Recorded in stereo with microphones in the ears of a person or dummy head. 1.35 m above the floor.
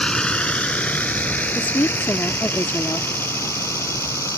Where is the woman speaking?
10° left (ahead or behind).